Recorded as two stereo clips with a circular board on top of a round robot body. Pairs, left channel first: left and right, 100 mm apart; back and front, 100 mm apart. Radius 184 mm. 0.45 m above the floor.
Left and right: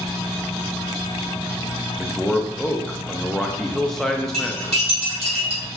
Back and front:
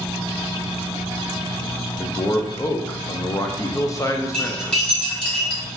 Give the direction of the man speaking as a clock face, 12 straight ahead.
6 o'clock.